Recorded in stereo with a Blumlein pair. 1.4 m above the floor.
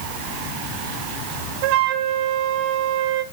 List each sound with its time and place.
1.6 s a flute: 45° right, 1.9 m